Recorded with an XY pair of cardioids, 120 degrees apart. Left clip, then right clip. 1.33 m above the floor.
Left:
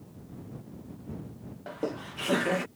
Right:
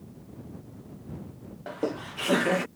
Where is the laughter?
15° right.